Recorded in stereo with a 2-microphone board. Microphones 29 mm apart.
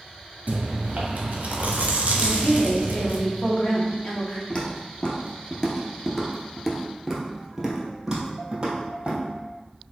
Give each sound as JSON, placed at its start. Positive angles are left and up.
{"t": 0.5, "sound": "chewing", "side_deg": -55, "distance_m": 0.8}
{"t": 2.2, "sound": "a woman speaking", "side_deg": 40, "distance_m": 1.1}
{"t": 4.5, "sound": "footsteps", "side_deg": 30, "distance_m": 1.2}